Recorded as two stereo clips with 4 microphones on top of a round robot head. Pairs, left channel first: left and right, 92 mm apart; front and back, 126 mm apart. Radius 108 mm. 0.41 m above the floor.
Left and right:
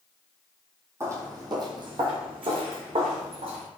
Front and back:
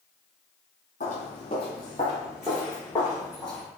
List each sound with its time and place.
1.0 s footsteps: 35° right, 0.9 m; by 3.7 s 85° right, 1.8 m